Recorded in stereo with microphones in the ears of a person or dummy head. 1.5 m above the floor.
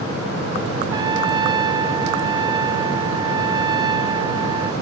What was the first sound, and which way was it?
A trumpet, 25° right (ahead or behind).